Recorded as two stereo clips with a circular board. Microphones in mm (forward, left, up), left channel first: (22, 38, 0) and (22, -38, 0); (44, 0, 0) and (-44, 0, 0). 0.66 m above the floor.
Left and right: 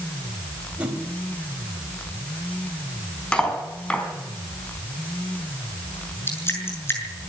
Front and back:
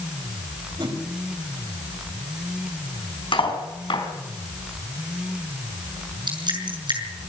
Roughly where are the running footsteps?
No running footsteps in this recording.